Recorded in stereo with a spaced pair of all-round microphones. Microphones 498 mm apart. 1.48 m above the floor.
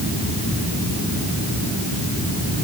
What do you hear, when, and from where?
Only background noise.